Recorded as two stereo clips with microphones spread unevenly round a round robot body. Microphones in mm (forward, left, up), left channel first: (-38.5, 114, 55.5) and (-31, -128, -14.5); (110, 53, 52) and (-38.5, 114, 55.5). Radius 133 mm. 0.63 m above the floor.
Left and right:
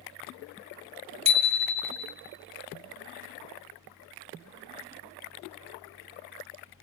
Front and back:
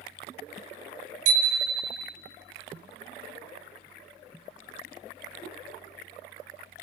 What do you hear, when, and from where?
1.2 s a bicycle bell: 150° right, 2 m